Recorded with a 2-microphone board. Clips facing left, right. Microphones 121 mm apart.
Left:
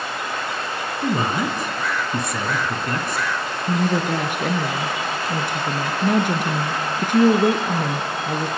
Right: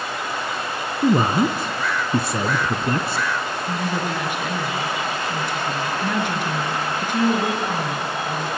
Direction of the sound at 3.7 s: 50° left (ahead or behind).